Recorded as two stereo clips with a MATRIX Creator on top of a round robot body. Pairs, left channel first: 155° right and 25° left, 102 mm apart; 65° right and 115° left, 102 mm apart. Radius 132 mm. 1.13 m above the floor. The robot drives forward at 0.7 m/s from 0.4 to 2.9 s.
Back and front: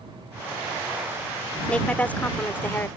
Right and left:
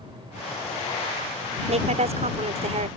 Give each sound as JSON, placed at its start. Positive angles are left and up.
{"t": 1.7, "sound": "a woman speaking", "azimuth_deg": 125}